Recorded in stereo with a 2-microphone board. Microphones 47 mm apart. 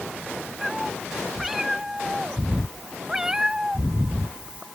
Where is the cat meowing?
5° right (ahead or behind); by 4.7 s 25° right (ahead or behind).